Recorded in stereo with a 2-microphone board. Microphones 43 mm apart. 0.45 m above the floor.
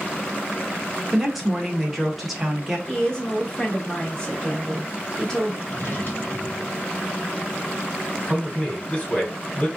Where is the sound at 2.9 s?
15° left (ahead or behind), 1.2 m.